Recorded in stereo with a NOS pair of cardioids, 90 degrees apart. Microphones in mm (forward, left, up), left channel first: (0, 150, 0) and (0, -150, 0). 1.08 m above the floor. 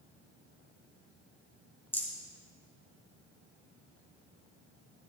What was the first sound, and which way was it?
A rattle, 5° left.